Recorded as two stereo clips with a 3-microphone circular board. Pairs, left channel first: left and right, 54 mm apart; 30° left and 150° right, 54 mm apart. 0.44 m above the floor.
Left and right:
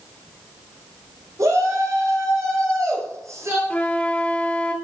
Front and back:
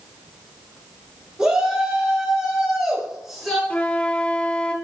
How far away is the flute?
About 1.1 m.